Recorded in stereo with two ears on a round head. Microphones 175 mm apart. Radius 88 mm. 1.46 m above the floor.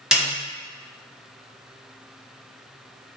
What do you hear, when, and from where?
0.1 s a snare drum: 5° right (ahead or behind), 0.9 m